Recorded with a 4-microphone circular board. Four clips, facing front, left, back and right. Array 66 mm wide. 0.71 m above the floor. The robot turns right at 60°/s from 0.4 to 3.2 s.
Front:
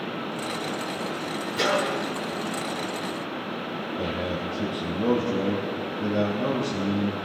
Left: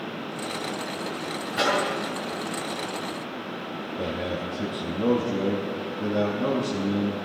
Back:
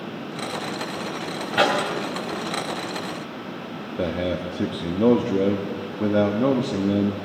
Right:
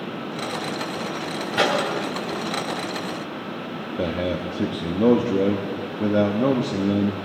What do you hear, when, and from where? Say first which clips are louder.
1.5 s a microwave: right 3 dB, back 4 dB; 170° right, 3 m; by 1.8 s 150° right, 3 m
4.0 s a man speaking: right 5 dB, back 6 dB; 145° right, 1.0 m